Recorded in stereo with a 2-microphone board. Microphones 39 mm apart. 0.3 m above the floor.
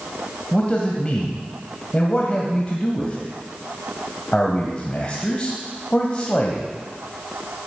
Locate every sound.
0.5 s a man speaking: 30° left (ahead or behind), 1.6 m